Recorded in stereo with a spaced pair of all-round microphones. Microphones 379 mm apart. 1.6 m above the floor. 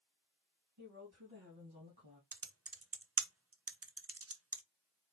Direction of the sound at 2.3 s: 40° right (ahead or behind).